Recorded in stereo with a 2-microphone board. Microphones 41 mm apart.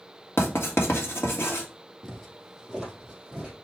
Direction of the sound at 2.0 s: Centre (ahead or behind).